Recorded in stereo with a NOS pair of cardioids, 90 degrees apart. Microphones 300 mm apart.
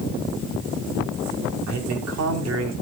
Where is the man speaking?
65° right, 5.5 m; by 2.7 s 55° right, 5 m.